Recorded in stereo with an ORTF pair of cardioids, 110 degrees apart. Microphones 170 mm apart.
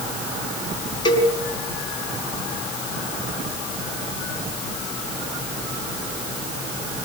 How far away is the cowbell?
About 5 m.